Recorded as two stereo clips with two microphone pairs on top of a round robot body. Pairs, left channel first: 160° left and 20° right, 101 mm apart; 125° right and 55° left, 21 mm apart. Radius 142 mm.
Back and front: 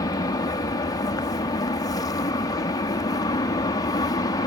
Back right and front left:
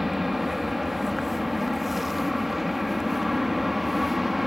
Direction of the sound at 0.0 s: 145° left.